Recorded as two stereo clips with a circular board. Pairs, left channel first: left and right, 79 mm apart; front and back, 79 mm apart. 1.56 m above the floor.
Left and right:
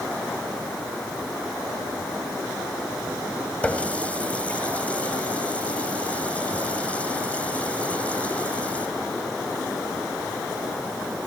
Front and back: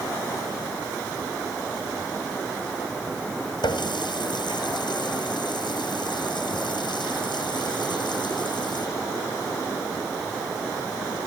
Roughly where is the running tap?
Ahead.